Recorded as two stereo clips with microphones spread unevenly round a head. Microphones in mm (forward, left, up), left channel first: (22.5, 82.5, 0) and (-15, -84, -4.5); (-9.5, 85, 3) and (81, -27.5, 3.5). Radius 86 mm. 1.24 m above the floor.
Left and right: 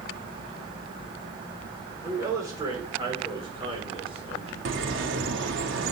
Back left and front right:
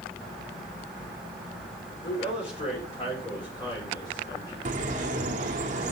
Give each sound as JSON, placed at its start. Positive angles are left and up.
{"t": 2.0, "sound": "a man speaking", "azimuth_deg": -175, "distance_m": 4.5}
{"t": 4.7, "sound": "a bird", "azimuth_deg": -95, "distance_m": 1.5}